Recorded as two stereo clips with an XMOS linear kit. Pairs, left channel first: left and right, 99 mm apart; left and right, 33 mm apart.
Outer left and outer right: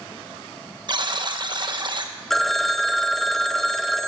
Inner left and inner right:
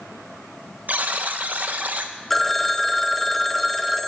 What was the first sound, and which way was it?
A buzzer, 50° right (ahead or behind).